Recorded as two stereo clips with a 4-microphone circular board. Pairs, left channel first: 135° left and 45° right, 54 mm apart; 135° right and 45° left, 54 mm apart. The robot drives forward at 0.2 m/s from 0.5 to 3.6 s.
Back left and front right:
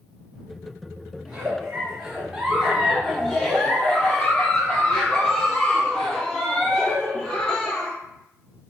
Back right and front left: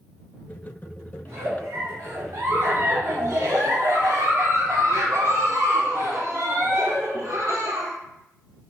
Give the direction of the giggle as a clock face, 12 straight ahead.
11 o'clock.